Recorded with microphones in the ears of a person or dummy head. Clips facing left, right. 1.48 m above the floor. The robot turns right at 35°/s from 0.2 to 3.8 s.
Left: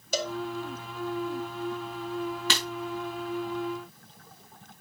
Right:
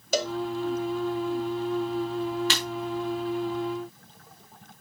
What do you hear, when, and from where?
0.1 s a cowbell: 60° right (ahead or behind), 0.7 m; by 0.3 s 55° right (ahead or behind), 0.7 m
2.5 s breaking glass: 75° left (ahead or behind), 5 m